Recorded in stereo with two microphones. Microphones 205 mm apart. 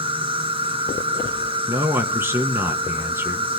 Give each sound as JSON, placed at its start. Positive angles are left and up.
{"t": 0.0, "sound": "an insect", "side_deg": -25, "distance_m": 1.7}
{"t": 1.7, "sound": "a man speaking", "side_deg": -10, "distance_m": 1.8}